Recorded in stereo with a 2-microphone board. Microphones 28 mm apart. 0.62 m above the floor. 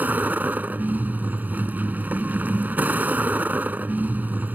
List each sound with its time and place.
0.0 s a vehicle: 80° right